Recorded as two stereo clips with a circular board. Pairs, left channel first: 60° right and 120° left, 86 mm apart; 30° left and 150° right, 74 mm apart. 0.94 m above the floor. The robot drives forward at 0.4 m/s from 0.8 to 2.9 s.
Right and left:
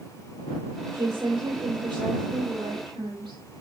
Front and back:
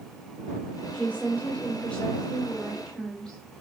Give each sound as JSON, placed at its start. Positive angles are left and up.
{"t": 0.9, "sound": "a woman speaking", "azimuth_deg": 95, "distance_m": 3.0}